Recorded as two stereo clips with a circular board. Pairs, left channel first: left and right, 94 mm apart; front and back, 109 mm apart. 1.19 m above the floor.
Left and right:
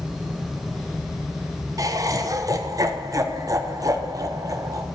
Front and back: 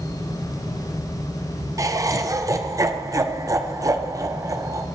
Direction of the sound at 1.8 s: 130° right.